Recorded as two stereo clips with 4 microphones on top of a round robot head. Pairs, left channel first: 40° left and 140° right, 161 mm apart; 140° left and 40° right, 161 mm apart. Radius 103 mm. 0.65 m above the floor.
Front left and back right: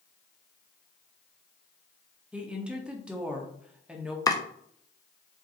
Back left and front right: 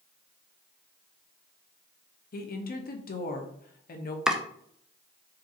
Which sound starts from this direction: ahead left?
Chopping, at 4.3 s.